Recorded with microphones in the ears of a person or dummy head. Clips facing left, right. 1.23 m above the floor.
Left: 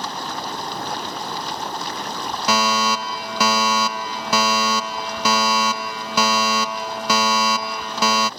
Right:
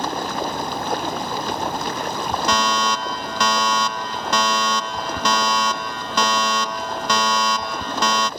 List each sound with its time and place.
0.0 s running water: 45° right (ahead or behind)
2.5 s a fire alarm: 10° left (ahead or behind)